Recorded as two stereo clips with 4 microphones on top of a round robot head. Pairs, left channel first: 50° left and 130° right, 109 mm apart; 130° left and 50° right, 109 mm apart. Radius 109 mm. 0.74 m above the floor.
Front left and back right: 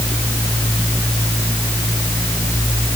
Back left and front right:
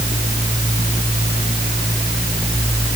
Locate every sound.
Only background noise.